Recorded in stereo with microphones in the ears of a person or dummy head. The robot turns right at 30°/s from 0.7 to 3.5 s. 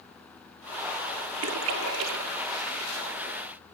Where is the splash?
65° right (ahead or behind), 1.6 m; by 2.9 s 70° right (ahead or behind), 1.6 m.